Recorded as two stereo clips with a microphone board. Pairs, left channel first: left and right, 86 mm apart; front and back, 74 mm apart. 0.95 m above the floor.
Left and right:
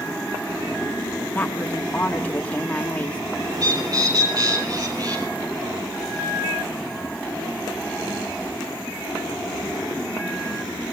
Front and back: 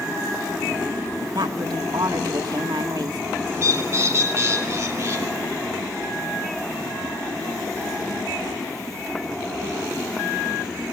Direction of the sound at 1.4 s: 165° left.